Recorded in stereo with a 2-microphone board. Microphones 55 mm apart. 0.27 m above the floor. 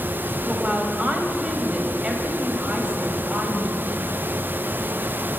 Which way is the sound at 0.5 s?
25° right (ahead or behind).